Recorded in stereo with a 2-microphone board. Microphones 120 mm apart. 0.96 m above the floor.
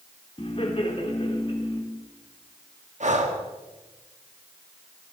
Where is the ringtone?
No ringtone in this recording.